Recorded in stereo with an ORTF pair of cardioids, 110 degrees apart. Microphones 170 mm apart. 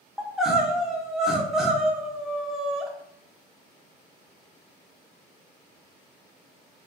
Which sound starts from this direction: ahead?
Crying, at 0.2 s.